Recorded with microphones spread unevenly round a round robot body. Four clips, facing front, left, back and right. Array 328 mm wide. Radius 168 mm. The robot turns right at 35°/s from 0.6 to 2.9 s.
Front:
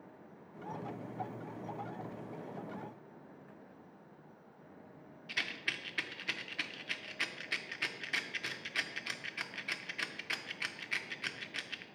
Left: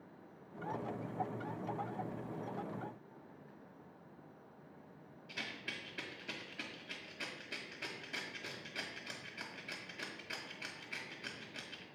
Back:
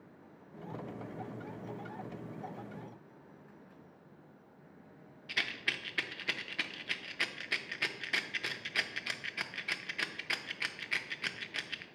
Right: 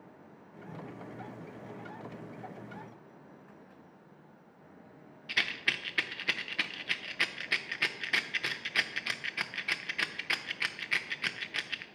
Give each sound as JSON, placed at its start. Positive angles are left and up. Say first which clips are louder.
{"t": 5.3, "sound": "a rattle", "louder": "right 11 dB, back 3 dB", "azimuth_deg": -85, "distance_m": 0.6}